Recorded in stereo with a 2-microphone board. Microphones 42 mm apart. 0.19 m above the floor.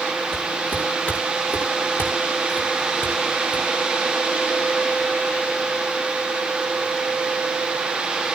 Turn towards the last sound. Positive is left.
turn(degrees=55)  # may be behind; listen again after turning